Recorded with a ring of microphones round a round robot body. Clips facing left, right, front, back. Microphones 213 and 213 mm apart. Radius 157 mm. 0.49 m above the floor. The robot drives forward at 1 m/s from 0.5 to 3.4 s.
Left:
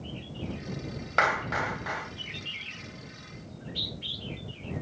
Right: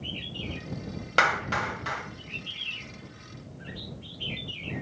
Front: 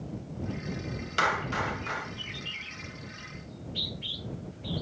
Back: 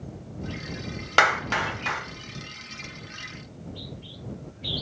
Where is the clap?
150° right, 2.5 m; by 2.0 s 160° right, 3 m.